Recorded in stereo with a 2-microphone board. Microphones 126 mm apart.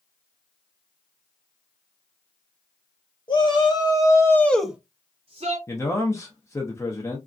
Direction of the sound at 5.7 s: 20° left (ahead or behind).